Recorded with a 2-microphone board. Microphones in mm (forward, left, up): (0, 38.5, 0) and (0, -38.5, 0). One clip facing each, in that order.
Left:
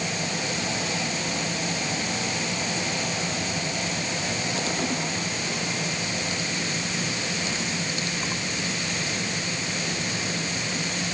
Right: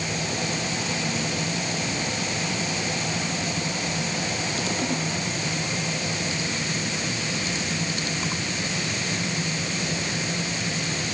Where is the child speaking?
I don't hear a child speaking.